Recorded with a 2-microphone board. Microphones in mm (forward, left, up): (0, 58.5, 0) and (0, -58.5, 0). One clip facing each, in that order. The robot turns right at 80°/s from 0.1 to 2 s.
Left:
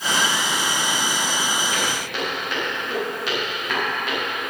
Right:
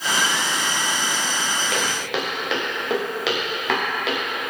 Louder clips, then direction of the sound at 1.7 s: Right 1 dB; 70° right (ahead or behind).